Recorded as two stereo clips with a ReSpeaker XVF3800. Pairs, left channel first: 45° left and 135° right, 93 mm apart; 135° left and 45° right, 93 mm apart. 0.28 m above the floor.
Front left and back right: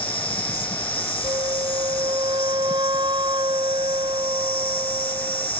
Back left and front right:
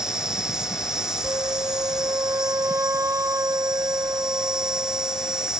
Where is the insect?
40° left.